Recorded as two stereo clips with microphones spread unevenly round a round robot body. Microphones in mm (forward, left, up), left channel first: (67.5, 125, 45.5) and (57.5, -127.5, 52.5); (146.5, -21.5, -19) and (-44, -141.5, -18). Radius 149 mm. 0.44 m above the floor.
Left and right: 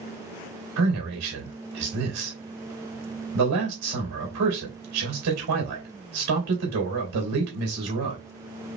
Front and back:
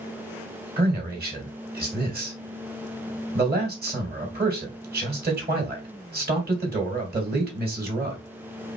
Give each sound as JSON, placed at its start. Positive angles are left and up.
{"t": 0.8, "sound": "a man speaking", "azimuth_deg": -105, "distance_m": 2.5}